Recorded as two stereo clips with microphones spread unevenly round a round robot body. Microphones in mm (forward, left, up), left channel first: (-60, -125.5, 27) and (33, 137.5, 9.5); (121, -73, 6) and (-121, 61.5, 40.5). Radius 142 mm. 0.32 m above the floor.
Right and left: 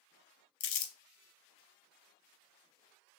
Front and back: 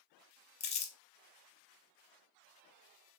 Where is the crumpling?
100° right, 0.6 m.